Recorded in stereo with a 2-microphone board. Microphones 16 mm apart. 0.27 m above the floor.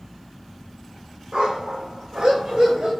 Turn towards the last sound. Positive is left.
turn(degrees=-70)  # may be behind; listen again after turning